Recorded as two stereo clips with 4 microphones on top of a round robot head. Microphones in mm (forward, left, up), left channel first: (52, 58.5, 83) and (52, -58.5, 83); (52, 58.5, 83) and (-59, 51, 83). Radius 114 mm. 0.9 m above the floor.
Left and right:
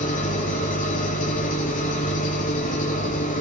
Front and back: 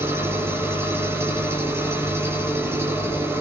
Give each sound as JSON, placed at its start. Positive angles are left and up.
{"t": 0.0, "sound": "an engine running", "azimuth_deg": 115, "distance_m": 6.0}